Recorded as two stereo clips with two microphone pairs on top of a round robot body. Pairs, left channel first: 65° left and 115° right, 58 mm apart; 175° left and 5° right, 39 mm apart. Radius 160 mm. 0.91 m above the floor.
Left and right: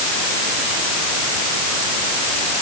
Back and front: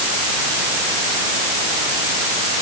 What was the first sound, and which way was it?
Only background noise.